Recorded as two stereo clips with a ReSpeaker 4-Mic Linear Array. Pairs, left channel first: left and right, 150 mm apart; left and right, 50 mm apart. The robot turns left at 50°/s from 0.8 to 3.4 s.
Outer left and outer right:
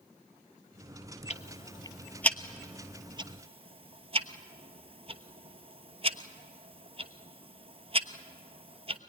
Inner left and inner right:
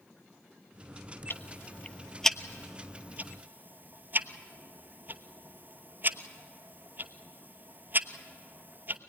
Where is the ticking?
50° left (ahead or behind), 1.0 m; by 9.0 s 40° right (ahead or behind), 1.0 m.